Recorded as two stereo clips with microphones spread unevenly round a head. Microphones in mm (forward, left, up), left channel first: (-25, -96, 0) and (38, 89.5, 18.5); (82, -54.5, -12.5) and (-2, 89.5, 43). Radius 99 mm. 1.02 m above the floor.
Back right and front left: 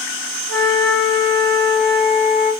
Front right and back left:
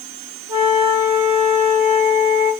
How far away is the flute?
About 1.8 m.